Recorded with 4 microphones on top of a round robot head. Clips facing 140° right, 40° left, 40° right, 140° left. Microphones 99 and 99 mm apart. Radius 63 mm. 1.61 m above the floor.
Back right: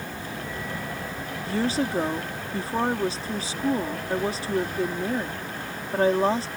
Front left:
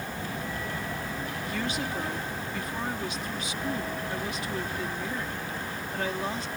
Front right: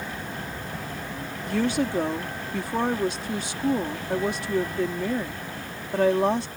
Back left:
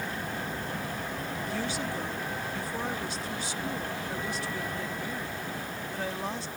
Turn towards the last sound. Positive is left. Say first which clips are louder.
# back right 9 dB, front right 11 dB
turn(degrees=-80)